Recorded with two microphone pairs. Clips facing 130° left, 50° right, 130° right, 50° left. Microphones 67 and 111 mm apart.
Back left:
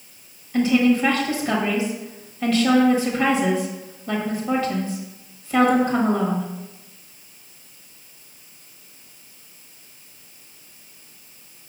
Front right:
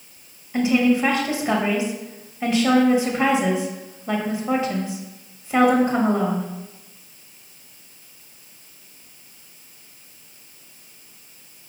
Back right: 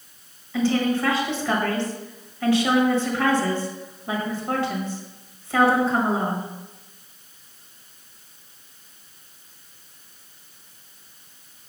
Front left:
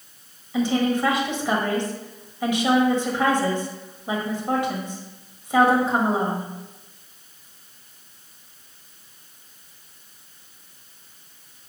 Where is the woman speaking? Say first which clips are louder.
Back left 1 dB, even; 5° right, 1.4 m.